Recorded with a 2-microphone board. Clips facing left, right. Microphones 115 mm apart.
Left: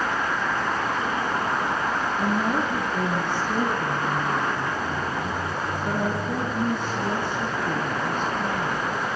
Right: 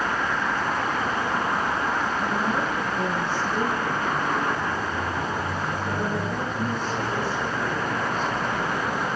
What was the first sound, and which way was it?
A woman speaking, 60° left (ahead or behind).